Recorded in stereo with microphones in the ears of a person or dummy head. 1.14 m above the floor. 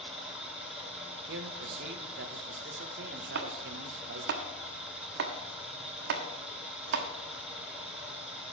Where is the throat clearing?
No throat clearing in this recording.